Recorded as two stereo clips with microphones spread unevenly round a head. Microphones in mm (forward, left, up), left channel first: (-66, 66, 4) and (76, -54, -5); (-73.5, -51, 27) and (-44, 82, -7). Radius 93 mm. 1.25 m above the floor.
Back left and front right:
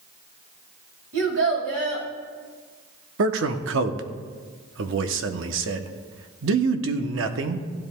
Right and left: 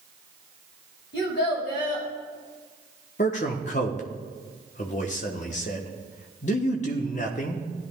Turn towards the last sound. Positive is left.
turn(degrees=-50)